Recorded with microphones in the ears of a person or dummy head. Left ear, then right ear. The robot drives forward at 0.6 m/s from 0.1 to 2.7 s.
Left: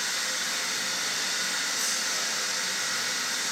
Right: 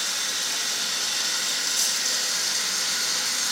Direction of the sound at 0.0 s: 30° right (ahead or behind).